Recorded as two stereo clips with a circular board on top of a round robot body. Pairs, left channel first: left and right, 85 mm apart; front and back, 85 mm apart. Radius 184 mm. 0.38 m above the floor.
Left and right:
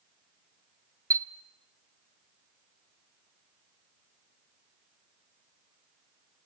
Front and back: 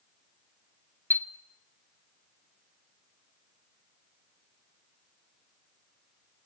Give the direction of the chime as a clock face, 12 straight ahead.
2 o'clock.